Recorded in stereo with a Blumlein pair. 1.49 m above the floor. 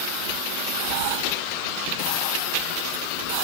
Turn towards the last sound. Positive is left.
turn(degrees=-50)